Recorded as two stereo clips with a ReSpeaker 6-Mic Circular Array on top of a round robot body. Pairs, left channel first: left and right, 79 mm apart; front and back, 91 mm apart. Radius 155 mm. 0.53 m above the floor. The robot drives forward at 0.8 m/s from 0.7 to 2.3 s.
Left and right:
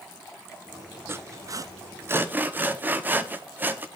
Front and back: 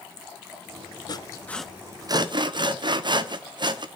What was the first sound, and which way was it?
Sawing, 30° right.